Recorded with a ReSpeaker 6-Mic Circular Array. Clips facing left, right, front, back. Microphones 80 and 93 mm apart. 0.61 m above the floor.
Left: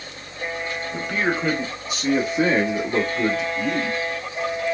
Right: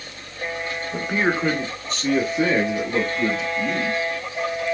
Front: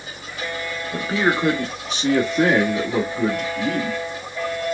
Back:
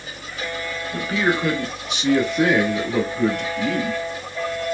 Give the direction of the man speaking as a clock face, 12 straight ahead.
1 o'clock.